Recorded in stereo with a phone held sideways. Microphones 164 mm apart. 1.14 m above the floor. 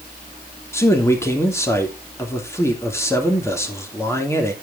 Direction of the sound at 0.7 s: 15° left (ahead or behind).